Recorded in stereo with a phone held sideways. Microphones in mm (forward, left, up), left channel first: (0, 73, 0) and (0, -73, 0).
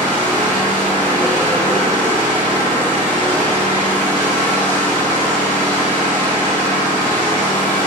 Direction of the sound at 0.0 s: 70° left (ahead or behind).